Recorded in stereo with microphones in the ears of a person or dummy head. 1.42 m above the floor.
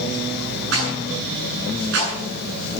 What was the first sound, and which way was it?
A rattle, 75° right (ahead or behind).